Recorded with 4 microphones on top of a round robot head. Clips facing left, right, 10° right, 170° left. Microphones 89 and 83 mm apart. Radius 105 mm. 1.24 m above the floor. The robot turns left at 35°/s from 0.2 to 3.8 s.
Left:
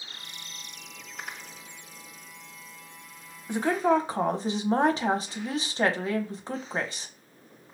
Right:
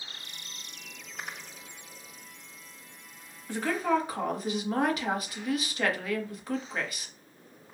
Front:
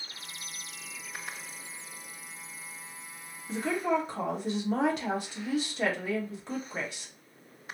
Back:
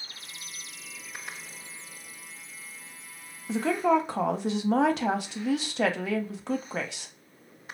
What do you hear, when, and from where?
3.5 s a woman speaking: 165° left, 0.7 m; by 7.1 s 155° left, 0.7 m